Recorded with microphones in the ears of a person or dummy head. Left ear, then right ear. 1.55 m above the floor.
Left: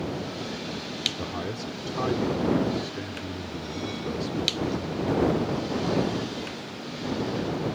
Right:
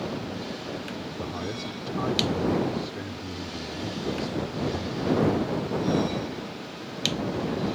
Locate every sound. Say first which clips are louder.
1.2 s a man speaking: even; 10° left (ahead or behind)